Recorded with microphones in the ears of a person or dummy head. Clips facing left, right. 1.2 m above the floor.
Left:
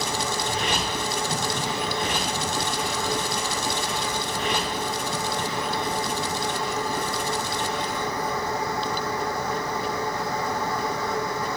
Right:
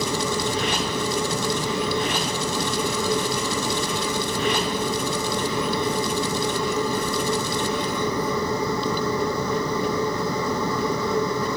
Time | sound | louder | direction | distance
0.0 | a machine running | right 4 dB | 90° right | ?